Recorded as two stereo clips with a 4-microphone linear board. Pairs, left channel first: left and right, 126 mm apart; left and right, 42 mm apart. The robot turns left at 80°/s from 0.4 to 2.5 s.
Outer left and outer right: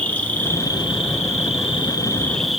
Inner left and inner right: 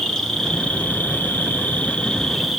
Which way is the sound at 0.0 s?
165° left.